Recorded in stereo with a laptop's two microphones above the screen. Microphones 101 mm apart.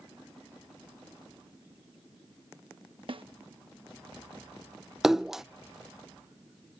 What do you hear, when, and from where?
3.1 s a snare drum: 55° right (ahead or behind)
5.0 s a splash: 5° right (ahead or behind)